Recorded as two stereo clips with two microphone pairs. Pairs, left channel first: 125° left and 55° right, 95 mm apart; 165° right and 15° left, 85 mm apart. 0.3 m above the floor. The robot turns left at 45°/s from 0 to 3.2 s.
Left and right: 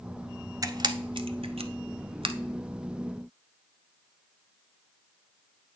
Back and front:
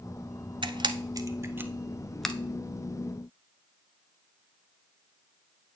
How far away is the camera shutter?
About 0.7 m.